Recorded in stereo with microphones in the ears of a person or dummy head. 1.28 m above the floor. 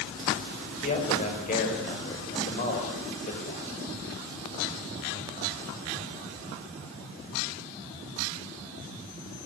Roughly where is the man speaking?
Left.